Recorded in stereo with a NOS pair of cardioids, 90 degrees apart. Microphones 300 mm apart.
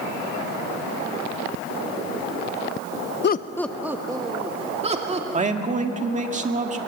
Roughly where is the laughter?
Ahead left.